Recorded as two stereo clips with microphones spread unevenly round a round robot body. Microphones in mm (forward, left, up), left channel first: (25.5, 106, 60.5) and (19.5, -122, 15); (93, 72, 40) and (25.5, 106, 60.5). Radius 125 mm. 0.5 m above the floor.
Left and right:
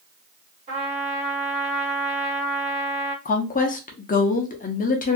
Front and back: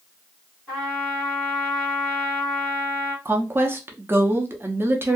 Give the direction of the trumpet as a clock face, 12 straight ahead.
3 o'clock.